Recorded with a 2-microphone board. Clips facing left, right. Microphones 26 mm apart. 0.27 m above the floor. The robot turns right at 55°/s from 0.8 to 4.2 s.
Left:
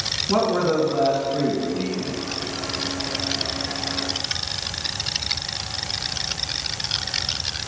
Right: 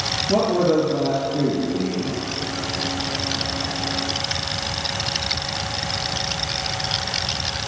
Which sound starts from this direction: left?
A man speaking, at 0.3 s.